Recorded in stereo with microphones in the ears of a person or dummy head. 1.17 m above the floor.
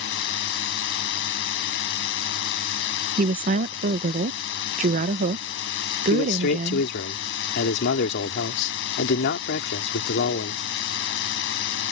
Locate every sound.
0.0 s a drone: 65° left (ahead or behind)
3.2 s a woman speaking: 45° right (ahead or behind)
6.1 s a man speaking: 60° left (ahead or behind)